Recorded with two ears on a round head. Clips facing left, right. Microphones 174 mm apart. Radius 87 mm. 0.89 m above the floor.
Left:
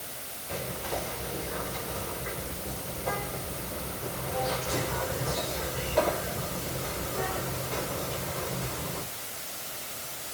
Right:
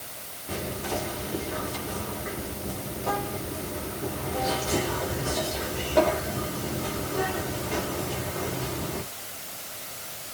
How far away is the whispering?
About 2.5 m.